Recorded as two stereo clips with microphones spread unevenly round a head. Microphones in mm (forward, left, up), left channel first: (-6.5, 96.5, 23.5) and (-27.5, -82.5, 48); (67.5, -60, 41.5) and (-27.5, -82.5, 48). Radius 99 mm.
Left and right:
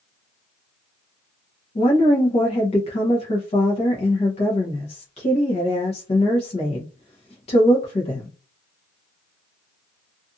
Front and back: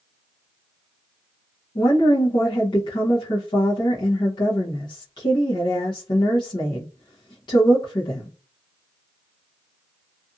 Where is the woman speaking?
40° left, 0.8 m.